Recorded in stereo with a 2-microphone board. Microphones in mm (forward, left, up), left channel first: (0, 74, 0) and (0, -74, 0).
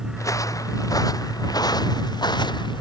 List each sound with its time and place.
0.2 s footsteps: 20° left (ahead or behind); by 2.8 s 30° left (ahead or behind)